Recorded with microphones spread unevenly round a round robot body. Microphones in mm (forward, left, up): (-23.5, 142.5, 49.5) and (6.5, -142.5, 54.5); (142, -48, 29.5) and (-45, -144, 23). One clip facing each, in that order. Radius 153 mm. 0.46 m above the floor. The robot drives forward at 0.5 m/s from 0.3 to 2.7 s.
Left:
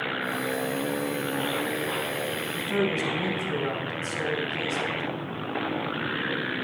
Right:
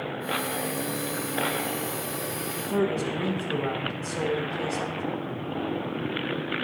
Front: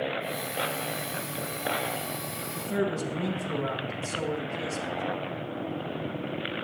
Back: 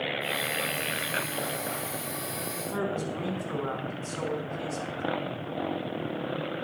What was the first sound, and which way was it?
A man speaking, 25° left.